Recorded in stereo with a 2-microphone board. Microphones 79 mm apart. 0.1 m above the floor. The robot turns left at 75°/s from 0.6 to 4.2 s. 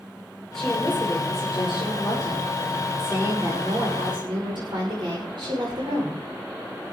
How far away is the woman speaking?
About 9.5 m.